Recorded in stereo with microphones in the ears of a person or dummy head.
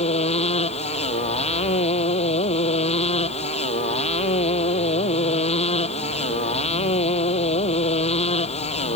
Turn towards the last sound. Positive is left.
turn(degrees=35)  # may be behind; listen again after turning